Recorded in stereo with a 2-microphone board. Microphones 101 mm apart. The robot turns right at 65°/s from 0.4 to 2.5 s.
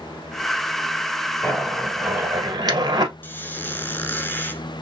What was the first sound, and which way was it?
A zipper, 20° left (ahead or behind).